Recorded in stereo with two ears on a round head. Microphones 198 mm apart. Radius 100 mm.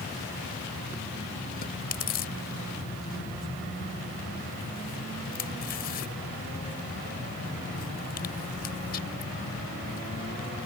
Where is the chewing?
45° left (ahead or behind).